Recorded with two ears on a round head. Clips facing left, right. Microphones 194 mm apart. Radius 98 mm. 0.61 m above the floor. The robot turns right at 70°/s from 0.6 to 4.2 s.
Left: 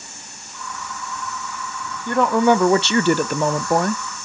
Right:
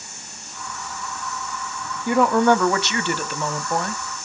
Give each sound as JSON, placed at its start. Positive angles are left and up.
{"t": 2.1, "sound": "a woman speaking", "azimuth_deg": -15, "distance_m": 0.7}